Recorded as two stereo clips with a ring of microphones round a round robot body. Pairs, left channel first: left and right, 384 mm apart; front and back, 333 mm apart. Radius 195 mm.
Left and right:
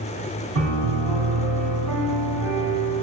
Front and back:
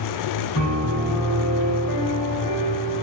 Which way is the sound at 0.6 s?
40° right.